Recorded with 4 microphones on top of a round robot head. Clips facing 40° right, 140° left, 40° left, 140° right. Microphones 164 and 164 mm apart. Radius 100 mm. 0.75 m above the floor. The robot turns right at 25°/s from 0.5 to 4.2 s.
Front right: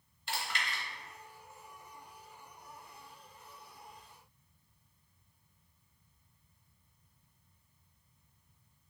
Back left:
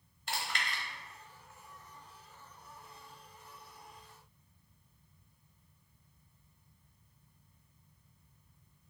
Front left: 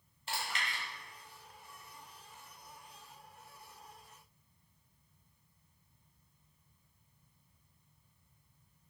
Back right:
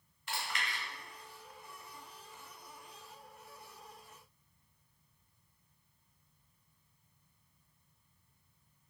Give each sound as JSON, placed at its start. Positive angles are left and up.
{"t": 0.3, "sound": "chewing", "azimuth_deg": 100, "distance_m": 0.9}